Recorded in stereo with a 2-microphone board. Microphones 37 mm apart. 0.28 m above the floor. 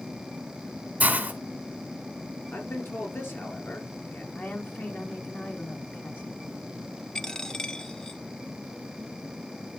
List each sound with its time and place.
1.0 s a hiss: 40° right (ahead or behind), 1.9 m
2.5 s a man speaking: 80° left, 4 m
4.3 s a woman speaking: 60° left (ahead or behind), 2 m
7.2 s a dropped coin: 20° left (ahead or behind), 0.5 m